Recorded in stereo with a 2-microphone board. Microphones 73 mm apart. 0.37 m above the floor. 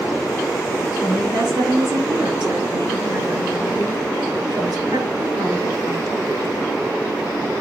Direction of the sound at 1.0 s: 70° right (ahead or behind).